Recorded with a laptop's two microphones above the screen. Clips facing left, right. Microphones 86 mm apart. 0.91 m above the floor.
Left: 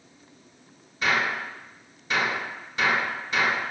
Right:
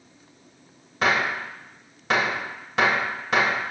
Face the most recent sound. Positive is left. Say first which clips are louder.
# right 2 dB
turn(degrees=-70)  # may be behind; listen again after turning